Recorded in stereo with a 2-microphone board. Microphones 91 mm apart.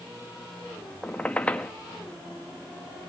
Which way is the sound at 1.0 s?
15° left (ahead or behind).